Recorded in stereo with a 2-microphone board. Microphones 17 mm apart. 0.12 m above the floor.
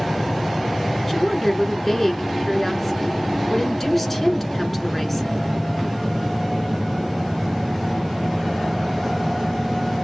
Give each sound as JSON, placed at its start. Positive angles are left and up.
{"t": 1.1, "sound": "a woman speaking", "side_deg": 15, "distance_m": 1.1}